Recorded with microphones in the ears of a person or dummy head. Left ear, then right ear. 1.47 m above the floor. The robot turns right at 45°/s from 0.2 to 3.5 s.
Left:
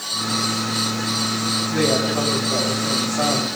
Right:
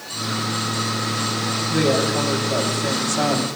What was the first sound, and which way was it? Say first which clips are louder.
A woman speaking: right 2 dB; 175° right.